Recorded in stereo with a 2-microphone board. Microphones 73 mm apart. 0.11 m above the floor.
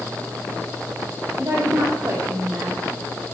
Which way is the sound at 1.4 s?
35° right (ahead or behind).